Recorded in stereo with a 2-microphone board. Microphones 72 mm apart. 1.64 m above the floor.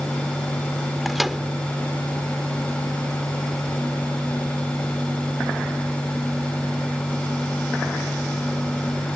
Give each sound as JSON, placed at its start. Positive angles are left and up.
{"t": 1.1, "sound": "a microwave", "side_deg": 0}